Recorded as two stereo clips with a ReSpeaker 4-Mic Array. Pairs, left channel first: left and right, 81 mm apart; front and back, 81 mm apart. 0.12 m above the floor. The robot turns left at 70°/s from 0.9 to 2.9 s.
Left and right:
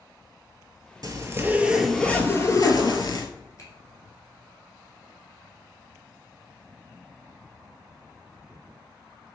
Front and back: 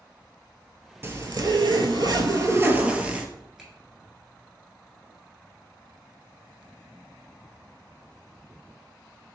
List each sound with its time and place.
1.0 s a zipper: 125° right, 0.5 m; by 3.3 s 105° left, 0.5 m
3.6 s a finger snap: 95° left, 1.2 m